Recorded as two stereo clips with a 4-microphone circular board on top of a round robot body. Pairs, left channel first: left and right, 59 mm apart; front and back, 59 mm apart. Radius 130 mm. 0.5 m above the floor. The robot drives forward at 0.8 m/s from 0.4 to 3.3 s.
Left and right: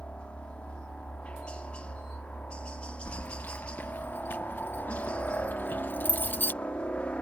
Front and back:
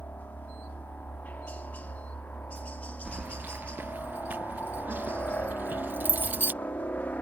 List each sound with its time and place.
0.0 s a helicopter: 35° left; by 7.2 s 40° left
3.0 s keys jangling: 100° left; by 6.5 s 135° left